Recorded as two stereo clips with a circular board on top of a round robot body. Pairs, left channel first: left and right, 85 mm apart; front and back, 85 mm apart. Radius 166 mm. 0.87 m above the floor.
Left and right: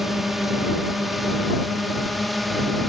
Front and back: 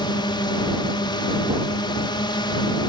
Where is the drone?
Straight ahead.